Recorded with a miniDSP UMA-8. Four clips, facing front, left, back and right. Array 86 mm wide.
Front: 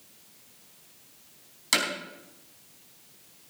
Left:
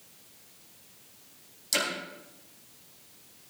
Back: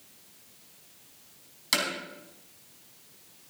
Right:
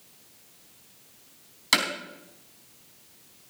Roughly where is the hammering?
Right.